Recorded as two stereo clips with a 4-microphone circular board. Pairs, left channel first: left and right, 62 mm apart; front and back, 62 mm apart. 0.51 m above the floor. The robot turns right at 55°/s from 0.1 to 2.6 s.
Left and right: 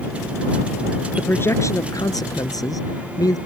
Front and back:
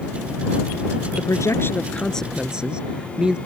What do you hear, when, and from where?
1.2 s a man speaking: 25° left; by 3.4 s 105° left